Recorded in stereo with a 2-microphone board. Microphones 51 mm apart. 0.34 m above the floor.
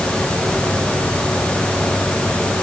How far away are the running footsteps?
No running footsteps in this recording.